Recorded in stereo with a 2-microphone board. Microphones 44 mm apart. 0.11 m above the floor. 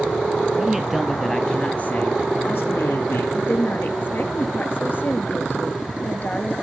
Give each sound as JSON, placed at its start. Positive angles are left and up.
{"t": 0.6, "sound": "a man speaking", "side_deg": -15, "distance_m": 2.0}
{"t": 3.3, "sound": "a woman speaking", "side_deg": 45, "distance_m": 1.6}